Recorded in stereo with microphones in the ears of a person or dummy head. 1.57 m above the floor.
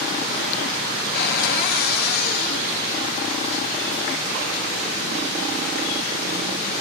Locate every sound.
1.1 s a cupboard door: 55° left (ahead or behind), 1.0 m